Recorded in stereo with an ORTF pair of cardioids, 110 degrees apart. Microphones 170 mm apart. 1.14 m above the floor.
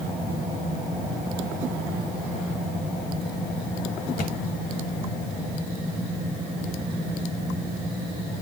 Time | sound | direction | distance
4.2 | a thud | 65° left | 2.5 m